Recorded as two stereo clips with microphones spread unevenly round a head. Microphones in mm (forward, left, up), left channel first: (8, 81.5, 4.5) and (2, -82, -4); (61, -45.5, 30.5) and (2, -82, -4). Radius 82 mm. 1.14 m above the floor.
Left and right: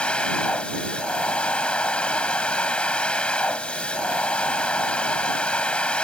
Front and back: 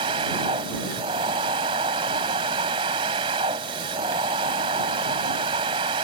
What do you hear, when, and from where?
0.0 s a machine running: 170° left